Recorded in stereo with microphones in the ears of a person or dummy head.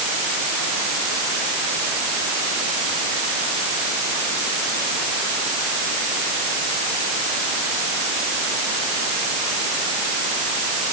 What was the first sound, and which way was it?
Only background noise.